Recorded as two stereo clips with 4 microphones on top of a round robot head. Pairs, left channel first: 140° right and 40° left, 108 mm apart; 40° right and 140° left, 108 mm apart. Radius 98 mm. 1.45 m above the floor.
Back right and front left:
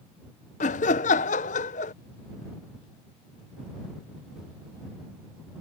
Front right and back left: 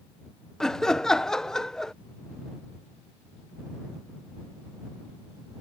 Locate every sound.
0.6 s laughter: 125° right